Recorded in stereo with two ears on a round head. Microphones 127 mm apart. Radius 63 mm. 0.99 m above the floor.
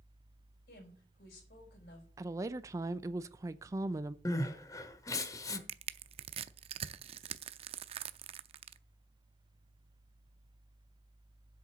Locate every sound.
0.7 s a woman speaking: 80° left, 5 m
2.2 s a woman speaking: 20° right (ahead or behind), 0.6 m
4.2 s crying: 25° left (ahead or behind), 1.1 m
5.7 s crushing: 40° right (ahead or behind), 0.6 m